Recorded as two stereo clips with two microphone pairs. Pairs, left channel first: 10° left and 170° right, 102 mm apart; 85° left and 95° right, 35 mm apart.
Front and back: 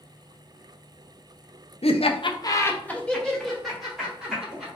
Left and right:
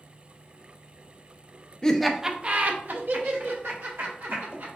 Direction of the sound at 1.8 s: 20° left.